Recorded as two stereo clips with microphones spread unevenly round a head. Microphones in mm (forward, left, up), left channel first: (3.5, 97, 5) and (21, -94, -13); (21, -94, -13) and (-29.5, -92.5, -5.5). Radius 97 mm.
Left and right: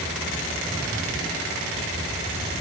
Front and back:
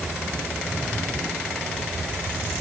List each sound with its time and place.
Only background noise.